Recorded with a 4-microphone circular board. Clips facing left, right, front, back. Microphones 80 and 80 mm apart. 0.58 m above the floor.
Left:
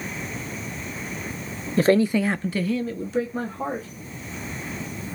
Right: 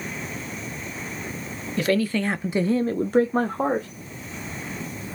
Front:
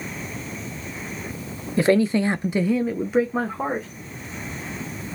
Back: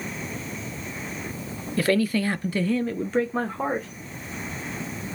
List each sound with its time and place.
1.8 s a man speaking: 60° left, 0.8 m; by 3.9 s 90° right, 1.5 m